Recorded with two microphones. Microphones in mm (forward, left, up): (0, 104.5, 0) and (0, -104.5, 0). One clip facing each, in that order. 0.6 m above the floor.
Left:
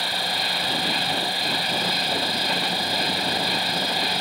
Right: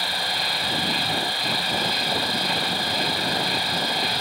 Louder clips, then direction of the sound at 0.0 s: Left 1 dB; centre (ahead or behind).